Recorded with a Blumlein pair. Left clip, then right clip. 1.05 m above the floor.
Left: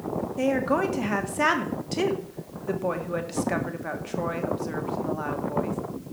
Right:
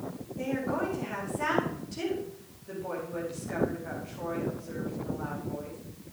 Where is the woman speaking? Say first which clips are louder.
Left 7 dB; 35° left, 1.7 m.